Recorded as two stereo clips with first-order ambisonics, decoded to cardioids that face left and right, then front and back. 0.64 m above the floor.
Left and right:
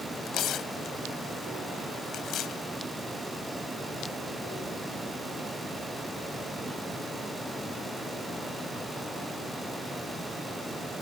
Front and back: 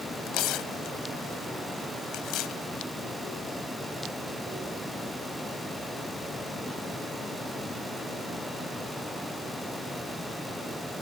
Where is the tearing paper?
40° left.